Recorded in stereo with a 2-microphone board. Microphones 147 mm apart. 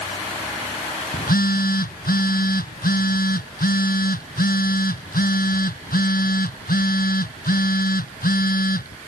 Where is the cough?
I don't hear a cough.